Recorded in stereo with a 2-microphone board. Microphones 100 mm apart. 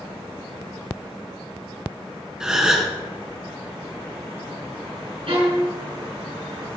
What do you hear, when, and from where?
2.4 s a gasp: 5° right (ahead or behind), 3 m
5.3 s a violin: 60° right (ahead or behind), 5.5 m